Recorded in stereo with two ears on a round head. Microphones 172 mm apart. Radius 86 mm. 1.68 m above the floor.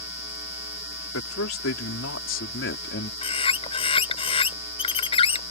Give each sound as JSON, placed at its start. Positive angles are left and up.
{"t": 1.1, "sound": "a man speaking", "side_deg": 85}
{"t": 3.2, "sound": "a bird", "side_deg": 30}